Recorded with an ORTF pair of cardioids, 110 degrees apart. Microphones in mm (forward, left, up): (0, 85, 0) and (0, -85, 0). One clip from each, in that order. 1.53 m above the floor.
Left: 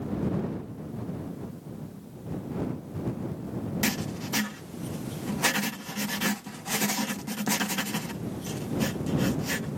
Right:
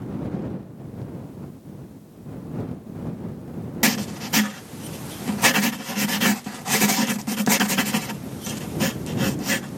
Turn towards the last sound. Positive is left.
turn(degrees=-40)